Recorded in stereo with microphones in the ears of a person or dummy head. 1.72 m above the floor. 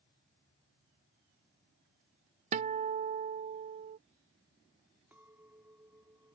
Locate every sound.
2.5 s a guitar: 40° right (ahead or behind)
5.1 s a clink: 10° right (ahead or behind)